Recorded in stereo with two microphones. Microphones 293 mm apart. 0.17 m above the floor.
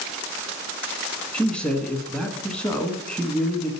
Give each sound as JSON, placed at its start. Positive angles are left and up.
{"t": 1.3, "sound": "a man speaking", "side_deg": 5, "distance_m": 1.4}